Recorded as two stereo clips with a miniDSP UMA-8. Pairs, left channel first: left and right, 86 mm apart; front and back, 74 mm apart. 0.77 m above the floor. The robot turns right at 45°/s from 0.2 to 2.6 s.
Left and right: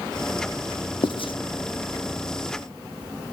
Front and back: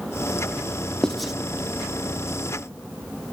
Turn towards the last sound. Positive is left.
turn(degrees=150)